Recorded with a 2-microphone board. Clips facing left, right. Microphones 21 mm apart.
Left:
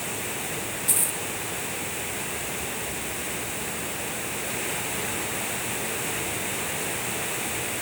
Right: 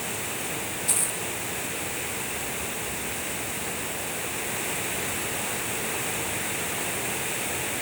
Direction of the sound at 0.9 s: 15° right (ahead or behind).